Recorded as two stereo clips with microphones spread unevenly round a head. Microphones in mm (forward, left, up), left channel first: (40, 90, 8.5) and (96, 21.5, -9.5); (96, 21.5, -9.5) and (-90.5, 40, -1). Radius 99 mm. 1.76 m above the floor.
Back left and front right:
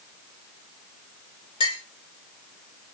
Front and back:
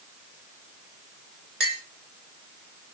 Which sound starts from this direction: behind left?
A clink, at 1.6 s.